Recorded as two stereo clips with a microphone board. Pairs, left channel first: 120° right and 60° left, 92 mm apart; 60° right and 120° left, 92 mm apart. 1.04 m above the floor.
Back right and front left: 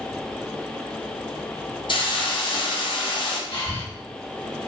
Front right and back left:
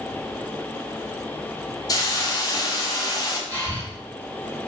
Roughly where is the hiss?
Right.